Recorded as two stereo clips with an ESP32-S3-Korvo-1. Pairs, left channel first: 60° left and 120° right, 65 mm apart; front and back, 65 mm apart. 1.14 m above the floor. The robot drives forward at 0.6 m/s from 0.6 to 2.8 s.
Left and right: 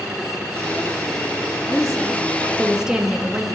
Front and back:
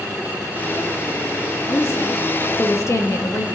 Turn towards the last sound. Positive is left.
turn(degrees=-40)